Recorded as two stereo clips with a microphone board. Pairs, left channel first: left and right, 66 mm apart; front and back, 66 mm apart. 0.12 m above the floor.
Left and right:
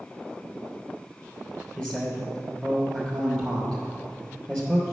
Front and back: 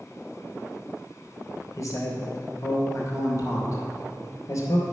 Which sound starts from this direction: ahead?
A man speaking, at 1.8 s.